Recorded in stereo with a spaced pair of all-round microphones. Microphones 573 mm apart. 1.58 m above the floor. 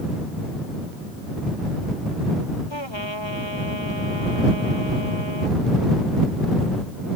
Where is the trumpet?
50° left (ahead or behind).